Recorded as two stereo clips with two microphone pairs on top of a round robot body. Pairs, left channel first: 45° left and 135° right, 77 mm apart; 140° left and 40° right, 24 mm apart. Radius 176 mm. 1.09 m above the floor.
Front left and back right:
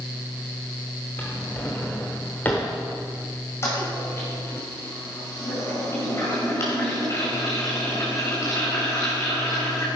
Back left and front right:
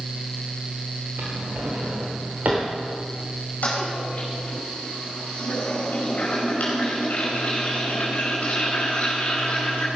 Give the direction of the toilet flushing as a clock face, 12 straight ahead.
9 o'clock.